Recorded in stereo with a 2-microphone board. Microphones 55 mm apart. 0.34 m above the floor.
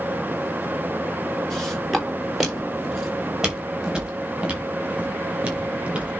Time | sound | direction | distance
1.5 | footsteps | 5° left (ahead or behind) | 3.5 m